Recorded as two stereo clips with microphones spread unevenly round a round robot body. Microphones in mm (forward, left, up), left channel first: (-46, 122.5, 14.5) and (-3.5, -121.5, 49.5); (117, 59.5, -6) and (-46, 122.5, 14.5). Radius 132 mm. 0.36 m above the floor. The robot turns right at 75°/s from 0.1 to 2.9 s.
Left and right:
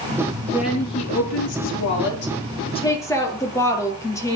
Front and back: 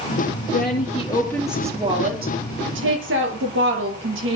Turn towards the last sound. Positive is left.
turn(degrees=175)